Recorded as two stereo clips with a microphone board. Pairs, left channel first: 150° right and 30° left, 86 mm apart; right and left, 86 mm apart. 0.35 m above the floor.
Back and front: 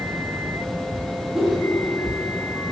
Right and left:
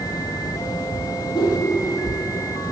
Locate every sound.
1.3 s a whoosh: 55° right, 7.5 m